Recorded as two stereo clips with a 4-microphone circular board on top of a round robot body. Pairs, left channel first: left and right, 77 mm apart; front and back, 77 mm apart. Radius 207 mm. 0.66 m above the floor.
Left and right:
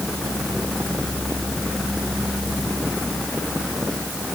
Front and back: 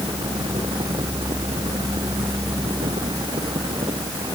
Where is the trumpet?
No trumpet in this recording.